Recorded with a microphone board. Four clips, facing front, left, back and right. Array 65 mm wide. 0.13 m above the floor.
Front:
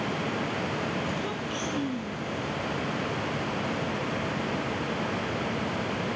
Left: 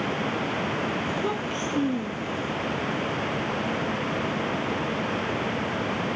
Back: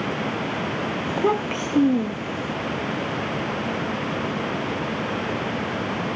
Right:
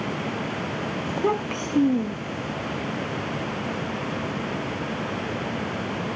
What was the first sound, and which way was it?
A child speaking, 160° right.